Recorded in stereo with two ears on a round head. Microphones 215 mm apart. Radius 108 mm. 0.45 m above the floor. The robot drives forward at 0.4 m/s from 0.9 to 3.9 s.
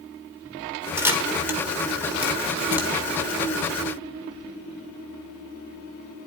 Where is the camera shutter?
10° right (ahead or behind), 1.5 m; by 2.9 s 5° right (ahead or behind), 2 m.